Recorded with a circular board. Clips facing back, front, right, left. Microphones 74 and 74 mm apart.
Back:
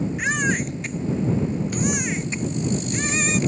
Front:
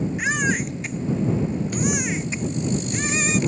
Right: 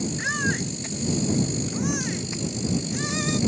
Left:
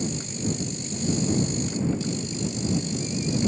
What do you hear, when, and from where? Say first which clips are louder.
0.2 s a baby crying: even, right 4 dB; 90° right